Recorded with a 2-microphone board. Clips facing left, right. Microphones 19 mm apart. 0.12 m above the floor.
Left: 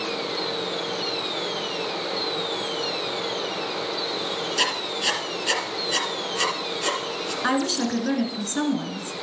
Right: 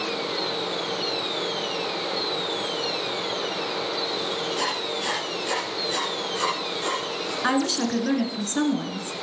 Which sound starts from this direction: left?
Writing, at 4.6 s.